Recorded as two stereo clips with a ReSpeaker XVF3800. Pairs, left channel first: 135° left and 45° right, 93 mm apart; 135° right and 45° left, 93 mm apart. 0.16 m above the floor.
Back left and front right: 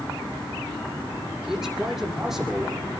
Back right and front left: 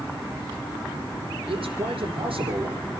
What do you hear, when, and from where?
1.5 s a man speaking: 40° left, 6.5 m